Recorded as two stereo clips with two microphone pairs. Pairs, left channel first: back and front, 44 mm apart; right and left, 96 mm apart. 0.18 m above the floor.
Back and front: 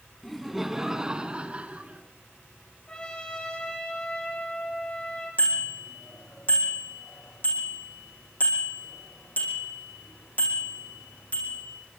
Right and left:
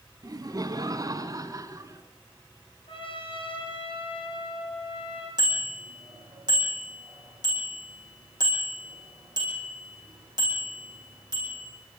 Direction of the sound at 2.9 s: 115° right.